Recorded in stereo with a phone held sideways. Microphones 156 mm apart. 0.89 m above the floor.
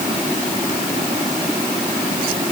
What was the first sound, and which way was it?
Only background noise.